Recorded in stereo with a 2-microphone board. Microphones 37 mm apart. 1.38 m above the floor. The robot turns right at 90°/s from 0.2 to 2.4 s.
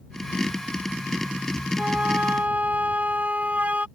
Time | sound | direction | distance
1.8 | a flute | 145° right | ?